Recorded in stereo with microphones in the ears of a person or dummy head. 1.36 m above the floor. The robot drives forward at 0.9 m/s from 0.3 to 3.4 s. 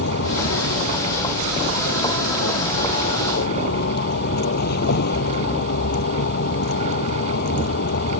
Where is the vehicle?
60° left (ahead or behind); by 8.2 s 55° left (ahead or behind).